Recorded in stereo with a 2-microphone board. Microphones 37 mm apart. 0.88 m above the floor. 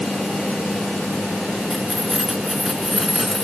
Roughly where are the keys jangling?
Centre.